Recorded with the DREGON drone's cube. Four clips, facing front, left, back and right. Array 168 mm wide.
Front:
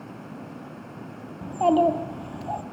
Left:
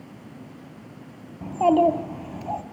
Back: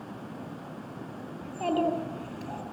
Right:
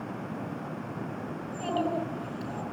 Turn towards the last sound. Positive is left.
turn(degrees=70)